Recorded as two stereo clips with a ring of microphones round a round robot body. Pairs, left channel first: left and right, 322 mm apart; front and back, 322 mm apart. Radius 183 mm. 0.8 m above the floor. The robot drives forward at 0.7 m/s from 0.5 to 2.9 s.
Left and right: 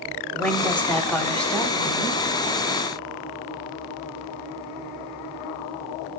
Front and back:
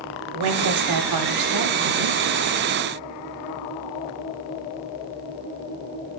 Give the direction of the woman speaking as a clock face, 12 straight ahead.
6 o'clock.